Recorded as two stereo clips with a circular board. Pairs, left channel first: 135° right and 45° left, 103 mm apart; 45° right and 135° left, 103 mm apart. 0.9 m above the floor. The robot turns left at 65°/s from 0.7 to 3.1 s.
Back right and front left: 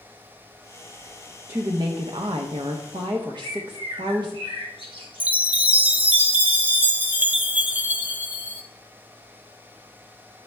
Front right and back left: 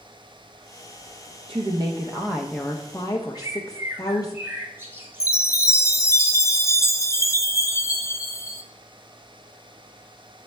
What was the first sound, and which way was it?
A woman speaking, 110° left.